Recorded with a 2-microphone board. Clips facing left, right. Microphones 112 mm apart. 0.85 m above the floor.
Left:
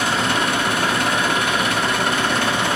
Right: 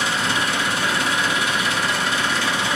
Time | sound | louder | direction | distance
0.0 | an engine running | left 3 dB | 55° left (ahead or behind) | 1.2 m